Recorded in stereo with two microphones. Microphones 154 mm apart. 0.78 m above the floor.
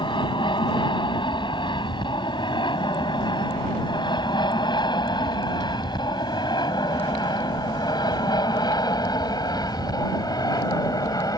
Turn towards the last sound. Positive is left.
turn(degrees=25)  # may be behind; listen again after turning